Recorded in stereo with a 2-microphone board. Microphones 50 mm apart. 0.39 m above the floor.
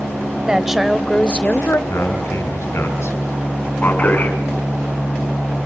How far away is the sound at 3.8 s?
About 4.5 m.